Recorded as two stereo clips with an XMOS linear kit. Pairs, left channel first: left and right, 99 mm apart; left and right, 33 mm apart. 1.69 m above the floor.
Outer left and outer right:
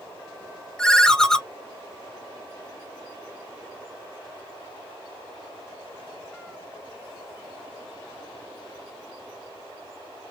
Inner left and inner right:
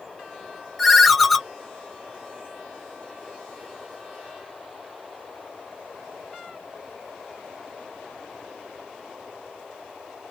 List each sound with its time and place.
0.8 s a ringtone: 5° left (ahead or behind), 0.6 m